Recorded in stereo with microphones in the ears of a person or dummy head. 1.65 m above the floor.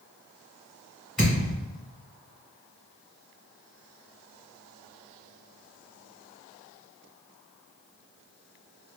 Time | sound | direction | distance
1.2 | a thud | centre (ahead or behind) | 1.6 m